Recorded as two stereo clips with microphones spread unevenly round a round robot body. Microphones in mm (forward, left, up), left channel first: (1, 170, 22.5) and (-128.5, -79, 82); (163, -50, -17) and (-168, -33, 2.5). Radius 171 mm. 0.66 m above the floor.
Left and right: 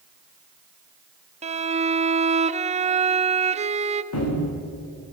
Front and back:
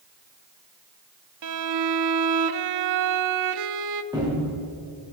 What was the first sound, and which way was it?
A violin, 170° left.